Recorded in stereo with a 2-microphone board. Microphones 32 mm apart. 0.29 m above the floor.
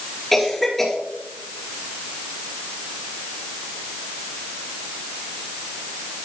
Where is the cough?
5° left (ahead or behind), 4 m.